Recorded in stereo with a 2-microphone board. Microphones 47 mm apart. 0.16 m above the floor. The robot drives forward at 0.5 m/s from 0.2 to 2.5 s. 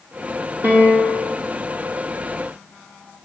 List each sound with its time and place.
0.6 s a piano: 45° right (ahead or behind), 3 m